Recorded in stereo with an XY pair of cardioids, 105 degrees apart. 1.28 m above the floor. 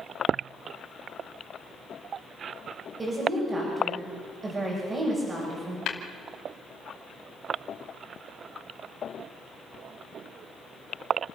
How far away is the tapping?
About 2.5 m.